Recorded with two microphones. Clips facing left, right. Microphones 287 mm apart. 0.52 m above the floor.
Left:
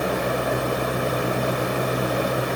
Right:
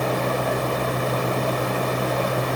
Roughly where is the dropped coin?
No dropped coin in this recording.